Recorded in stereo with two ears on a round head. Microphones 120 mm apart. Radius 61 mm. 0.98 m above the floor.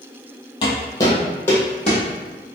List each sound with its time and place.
0.6 s footsteps: 35° left (ahead or behind), 1.7 m; by 2.0 s 5° left (ahead or behind), 1.8 m